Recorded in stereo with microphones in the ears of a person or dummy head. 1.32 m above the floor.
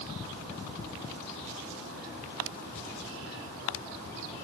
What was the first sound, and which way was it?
Only background noise.